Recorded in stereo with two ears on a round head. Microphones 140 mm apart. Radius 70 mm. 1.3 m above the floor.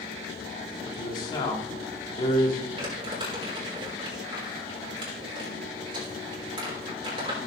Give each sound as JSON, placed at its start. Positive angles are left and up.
{"t": 0.8, "sound": "a man speaking", "side_deg": 30, "distance_m": 2.5}
{"t": 2.8, "sound": "crumpling", "side_deg": -30, "distance_m": 4.5}